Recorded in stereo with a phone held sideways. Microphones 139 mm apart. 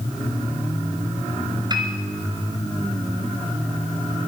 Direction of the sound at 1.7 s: 30° right (ahead or behind).